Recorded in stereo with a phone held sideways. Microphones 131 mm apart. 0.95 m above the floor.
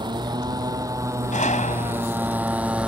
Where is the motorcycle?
35° right (ahead or behind); by 2.9 s 5° right (ahead or behind).